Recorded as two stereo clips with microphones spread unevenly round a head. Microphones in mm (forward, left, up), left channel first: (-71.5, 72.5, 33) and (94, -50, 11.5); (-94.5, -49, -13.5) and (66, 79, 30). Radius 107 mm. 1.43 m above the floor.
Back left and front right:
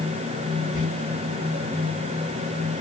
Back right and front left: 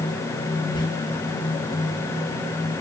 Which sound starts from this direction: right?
Whispering, at 0.7 s.